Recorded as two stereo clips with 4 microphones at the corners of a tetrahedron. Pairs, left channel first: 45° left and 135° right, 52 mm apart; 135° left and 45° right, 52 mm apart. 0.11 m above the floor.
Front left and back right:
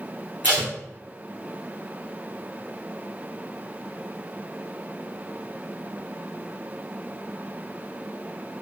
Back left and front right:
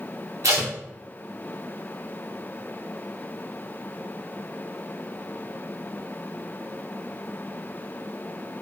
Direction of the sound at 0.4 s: 70° right.